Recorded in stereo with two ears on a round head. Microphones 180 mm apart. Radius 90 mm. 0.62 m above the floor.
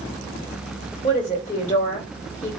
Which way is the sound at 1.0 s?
35° left (ahead or behind).